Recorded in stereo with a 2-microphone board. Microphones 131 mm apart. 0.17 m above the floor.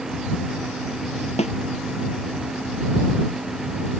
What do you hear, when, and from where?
1.4 s a snare drum: 55° left (ahead or behind)